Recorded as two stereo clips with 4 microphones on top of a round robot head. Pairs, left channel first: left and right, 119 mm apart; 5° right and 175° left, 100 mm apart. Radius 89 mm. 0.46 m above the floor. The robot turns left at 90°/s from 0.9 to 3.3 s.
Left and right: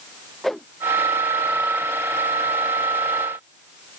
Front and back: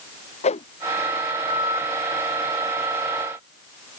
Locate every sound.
0.4 s a whoosh: straight ahead